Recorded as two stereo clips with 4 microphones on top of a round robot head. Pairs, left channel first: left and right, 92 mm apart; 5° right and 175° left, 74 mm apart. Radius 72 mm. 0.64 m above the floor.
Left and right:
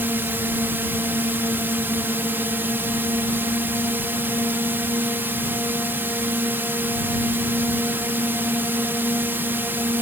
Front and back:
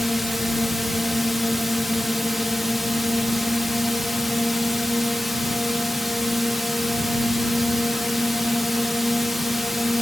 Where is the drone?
100° right.